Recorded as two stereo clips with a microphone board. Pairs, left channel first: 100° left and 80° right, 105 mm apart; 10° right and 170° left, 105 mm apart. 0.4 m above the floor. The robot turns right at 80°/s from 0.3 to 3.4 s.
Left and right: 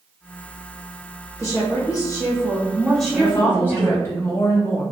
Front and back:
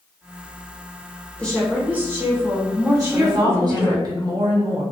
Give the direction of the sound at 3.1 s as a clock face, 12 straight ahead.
8 o'clock.